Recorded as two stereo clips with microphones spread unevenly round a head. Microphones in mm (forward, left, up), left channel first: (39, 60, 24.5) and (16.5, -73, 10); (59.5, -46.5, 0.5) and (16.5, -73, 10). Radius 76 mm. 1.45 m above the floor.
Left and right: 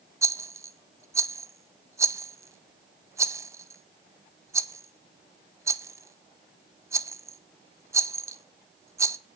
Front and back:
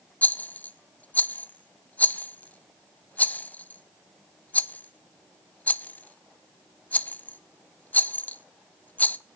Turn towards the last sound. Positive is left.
turn(degrees=-30)